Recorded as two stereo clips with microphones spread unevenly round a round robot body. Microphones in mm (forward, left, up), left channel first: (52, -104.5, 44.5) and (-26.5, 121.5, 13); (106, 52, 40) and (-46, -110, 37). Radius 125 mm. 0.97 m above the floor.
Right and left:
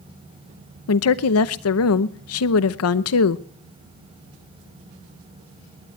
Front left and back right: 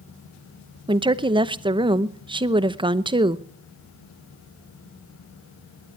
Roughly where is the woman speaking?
Right.